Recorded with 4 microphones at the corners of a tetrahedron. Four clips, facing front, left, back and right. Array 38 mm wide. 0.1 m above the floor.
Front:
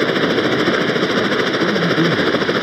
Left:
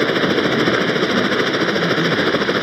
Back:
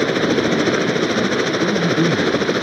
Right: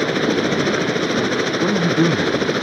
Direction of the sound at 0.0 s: 50° left.